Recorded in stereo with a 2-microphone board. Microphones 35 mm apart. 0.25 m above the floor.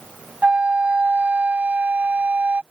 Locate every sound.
0.4 s a flute: 45° right (ahead or behind)